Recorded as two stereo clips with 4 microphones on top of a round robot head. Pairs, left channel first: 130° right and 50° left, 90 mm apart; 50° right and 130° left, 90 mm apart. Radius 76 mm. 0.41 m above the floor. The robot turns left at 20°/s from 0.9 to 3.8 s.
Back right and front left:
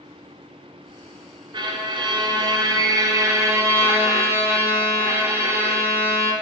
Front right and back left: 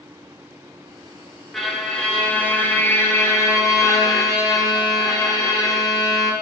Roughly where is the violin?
Ahead left.